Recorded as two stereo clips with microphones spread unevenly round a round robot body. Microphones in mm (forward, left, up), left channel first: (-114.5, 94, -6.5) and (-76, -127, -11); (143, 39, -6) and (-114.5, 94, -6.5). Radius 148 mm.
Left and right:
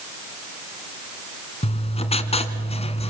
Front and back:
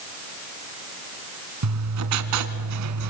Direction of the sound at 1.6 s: 160° left.